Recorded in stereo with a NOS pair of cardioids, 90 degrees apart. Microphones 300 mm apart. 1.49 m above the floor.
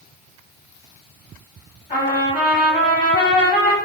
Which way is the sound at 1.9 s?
25° left.